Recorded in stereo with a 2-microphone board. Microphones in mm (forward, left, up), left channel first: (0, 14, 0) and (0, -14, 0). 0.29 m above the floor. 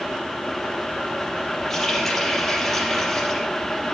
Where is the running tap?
10° left (ahead or behind), 4.5 m.